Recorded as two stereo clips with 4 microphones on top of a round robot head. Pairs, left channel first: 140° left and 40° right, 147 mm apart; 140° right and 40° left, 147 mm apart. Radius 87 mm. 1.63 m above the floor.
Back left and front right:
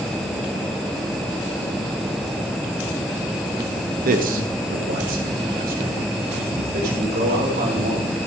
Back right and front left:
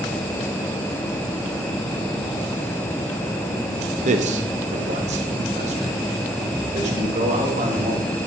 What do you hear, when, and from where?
4.0 s a man speaking: 5° right, 1.0 m